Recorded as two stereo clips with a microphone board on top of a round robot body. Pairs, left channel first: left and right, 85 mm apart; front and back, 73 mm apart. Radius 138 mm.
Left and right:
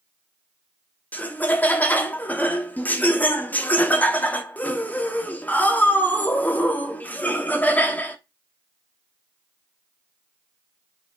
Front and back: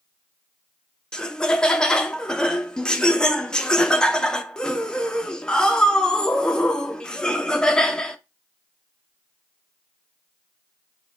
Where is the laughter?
60° left, 0.9 m.